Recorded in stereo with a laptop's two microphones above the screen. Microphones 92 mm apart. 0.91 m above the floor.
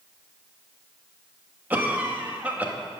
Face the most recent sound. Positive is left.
turn(degrees=-20)  # may be behind; listen again after turning